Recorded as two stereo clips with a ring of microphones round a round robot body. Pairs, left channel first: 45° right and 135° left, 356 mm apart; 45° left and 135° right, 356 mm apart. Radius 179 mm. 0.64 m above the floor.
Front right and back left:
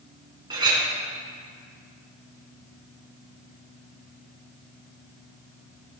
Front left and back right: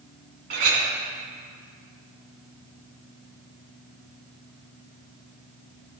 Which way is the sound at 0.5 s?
145° right.